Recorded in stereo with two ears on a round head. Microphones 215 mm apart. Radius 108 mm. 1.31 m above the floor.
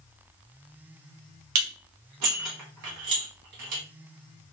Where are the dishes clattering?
80° right, 1.0 m.